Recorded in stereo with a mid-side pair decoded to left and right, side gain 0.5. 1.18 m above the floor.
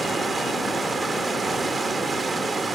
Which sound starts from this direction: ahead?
Running water, at 0.0 s.